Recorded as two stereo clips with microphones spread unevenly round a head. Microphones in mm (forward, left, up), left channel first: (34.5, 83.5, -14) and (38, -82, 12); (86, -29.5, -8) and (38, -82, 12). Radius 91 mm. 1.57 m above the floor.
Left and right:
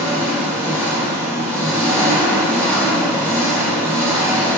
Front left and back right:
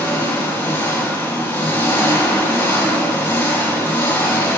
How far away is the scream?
I don't hear a scream.